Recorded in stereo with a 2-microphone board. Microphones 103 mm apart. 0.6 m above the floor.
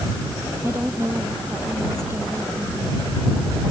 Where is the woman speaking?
25° right (ahead or behind).